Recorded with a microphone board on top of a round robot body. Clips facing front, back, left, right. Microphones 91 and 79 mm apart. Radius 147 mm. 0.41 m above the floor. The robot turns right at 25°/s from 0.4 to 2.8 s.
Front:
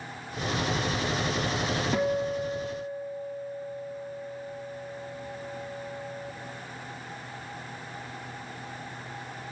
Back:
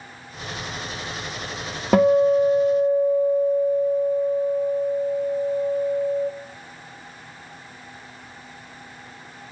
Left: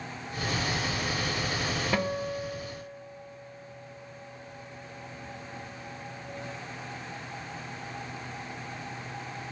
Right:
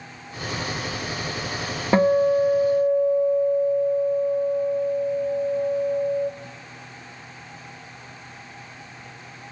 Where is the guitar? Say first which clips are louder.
Back 15 dB, right 17 dB; 150° right, 0.5 m; by 6.3 s 130° right, 0.5 m.